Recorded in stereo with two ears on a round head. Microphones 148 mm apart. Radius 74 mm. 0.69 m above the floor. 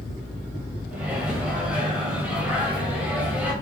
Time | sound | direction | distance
0.9 | a microwave | 10° right (ahead or behind) | 2.5 m